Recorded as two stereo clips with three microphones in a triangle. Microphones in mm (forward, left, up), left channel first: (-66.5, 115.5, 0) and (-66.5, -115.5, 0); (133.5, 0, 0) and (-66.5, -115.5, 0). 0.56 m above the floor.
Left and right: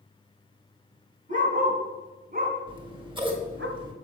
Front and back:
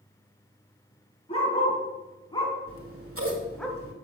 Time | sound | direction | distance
1.3 | a dog barking | 35° right | 3 m
2.7 | scissors | 160° right | 1.6 m